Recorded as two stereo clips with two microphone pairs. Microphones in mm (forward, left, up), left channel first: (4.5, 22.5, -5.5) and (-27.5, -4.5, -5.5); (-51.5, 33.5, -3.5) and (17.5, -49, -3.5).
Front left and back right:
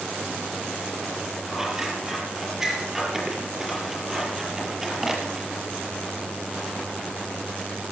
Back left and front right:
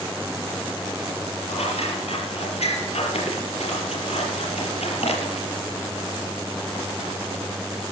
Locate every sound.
1.5 s scissors: 140° left, 6 m